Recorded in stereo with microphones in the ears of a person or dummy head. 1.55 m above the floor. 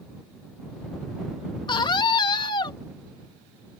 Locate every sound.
1.7 s a scream: 20° left (ahead or behind)